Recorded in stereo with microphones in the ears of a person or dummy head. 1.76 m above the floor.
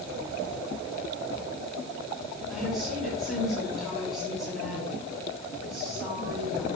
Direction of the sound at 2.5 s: 5° left (ahead or behind).